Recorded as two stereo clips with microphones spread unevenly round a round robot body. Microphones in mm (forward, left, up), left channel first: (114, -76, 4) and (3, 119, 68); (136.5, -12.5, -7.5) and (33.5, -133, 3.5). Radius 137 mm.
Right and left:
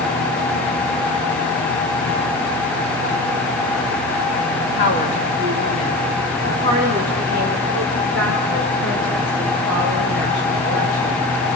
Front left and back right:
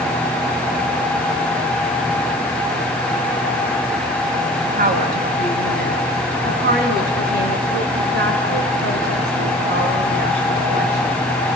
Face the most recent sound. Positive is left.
turn(degrees=-160)